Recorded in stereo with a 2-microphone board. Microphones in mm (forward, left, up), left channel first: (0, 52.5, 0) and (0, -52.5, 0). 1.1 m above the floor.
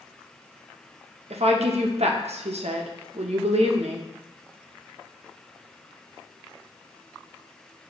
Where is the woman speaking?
85° right, 0.7 m.